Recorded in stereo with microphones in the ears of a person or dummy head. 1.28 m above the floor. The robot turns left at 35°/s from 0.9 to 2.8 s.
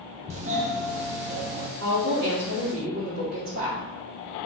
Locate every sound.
0.3 s a doorbell: 35° right (ahead or behind), 0.5 m; by 1.7 s 30° right (ahead or behind), 0.5 m
1.8 s a woman speaking: 90° right, 1.1 m; by 3.8 s 125° right, 1.1 m